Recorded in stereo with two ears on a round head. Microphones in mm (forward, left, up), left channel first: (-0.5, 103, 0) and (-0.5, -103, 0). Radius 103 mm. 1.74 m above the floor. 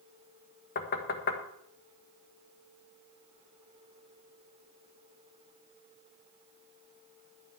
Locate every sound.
0.8 s knocking: 45° left (ahead or behind), 1.6 m